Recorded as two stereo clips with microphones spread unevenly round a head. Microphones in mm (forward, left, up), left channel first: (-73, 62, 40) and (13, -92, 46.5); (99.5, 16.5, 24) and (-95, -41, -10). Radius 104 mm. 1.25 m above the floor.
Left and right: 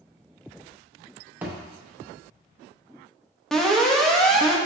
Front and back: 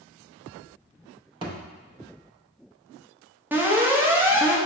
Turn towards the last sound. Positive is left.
turn(degrees=-165)